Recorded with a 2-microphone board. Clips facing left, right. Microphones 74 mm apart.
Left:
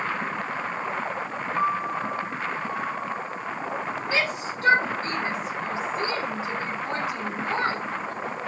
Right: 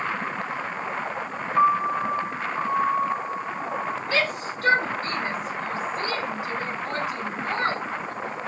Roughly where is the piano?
Right.